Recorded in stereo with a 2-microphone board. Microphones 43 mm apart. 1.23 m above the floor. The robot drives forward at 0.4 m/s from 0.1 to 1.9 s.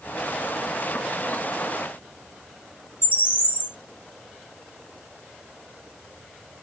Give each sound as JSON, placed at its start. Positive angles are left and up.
{"t": 3.0, "sound": "a bird", "side_deg": 50, "distance_m": 1.9}